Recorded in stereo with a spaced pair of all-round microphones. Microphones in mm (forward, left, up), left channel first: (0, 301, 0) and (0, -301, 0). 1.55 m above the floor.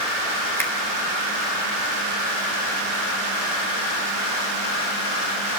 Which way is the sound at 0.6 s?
5° left (ahead or behind).